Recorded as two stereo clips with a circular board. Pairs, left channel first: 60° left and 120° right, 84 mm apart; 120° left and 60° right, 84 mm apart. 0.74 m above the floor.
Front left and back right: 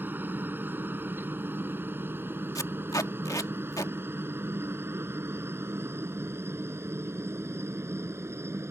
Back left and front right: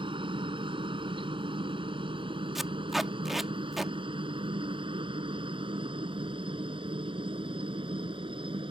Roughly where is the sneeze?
I don't hear a sneeze.